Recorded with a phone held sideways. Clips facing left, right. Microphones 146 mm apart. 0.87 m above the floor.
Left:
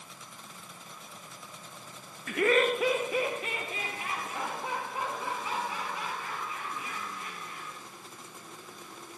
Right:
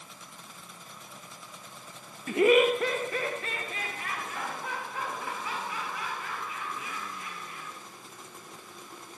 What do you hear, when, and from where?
2.3 s laughter: 30° right (ahead or behind), 0.5 m; by 7.8 s 20° left (ahead or behind), 7 m